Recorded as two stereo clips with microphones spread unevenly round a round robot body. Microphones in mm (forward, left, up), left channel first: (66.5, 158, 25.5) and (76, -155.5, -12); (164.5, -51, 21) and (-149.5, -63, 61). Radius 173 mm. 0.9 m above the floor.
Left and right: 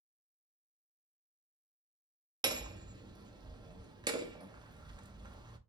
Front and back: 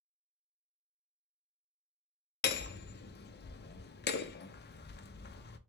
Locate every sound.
2.4 s hammering: 25° right, 0.5 m